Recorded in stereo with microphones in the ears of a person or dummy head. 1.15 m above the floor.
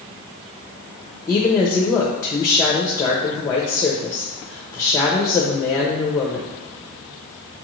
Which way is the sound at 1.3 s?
20° left (ahead or behind).